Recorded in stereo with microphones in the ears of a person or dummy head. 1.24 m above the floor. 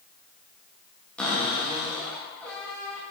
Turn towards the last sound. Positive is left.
turn(degrees=5)  # may be behind; listen again after turning